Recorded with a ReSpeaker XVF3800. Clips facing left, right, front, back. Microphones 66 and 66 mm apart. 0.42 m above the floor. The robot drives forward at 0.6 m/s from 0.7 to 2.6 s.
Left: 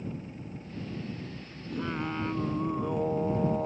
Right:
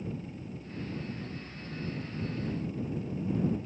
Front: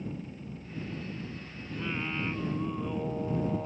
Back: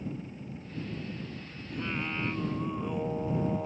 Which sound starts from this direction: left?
Singing, at 1.7 s.